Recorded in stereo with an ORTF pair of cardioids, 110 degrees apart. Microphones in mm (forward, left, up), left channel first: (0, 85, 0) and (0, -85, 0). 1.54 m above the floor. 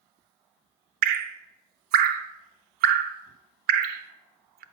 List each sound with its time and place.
1.0 s dripping: 65° right, 0.6 m